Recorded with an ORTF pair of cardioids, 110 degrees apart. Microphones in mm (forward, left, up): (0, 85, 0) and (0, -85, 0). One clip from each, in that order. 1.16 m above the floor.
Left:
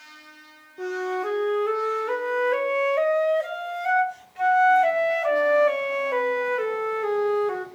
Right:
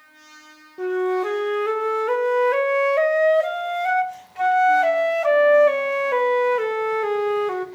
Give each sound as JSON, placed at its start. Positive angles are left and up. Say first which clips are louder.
{"t": 0.8, "sound": "a flute", "louder": "right 5 dB", "azimuth_deg": -25, "distance_m": 0.8}